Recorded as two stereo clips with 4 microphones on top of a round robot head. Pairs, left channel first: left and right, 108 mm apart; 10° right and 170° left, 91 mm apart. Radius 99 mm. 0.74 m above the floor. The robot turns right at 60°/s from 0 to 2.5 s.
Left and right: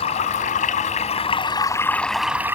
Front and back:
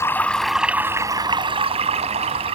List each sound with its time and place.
0.0 s running water: 50° left; by 2.6 s 160° right